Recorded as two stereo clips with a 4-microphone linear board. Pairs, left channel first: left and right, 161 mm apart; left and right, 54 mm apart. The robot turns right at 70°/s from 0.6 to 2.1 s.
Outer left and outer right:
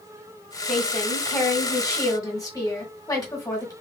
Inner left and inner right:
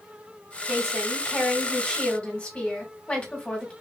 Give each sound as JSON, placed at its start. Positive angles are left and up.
{"t": 0.7, "sound": "a woman speaking", "side_deg": -5, "distance_m": 1.3}